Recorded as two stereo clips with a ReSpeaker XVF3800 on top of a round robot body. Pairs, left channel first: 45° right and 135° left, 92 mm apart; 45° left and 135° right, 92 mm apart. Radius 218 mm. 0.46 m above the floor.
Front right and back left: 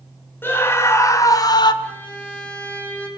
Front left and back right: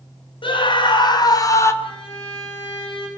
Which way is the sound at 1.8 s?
30° left.